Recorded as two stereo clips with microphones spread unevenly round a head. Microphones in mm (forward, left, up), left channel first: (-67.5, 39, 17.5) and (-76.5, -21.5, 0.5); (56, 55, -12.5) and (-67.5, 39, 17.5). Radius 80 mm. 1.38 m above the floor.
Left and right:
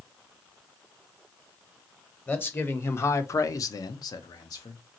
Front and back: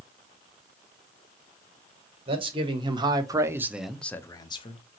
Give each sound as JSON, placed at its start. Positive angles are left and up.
{"t": 2.3, "sound": "a man speaking", "azimuth_deg": 140, "distance_m": 1.2}